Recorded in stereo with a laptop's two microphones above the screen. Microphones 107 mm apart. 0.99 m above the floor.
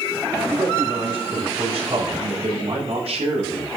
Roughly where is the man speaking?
Right.